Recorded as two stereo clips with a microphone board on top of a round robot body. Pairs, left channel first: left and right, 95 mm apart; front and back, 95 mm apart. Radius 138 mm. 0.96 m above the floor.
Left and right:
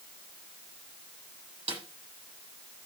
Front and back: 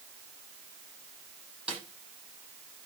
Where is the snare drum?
100° right, 7 m.